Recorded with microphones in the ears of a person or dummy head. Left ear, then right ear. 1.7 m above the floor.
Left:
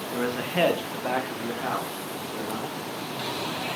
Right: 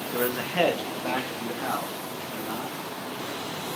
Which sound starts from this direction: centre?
A man speaking, at 0.1 s.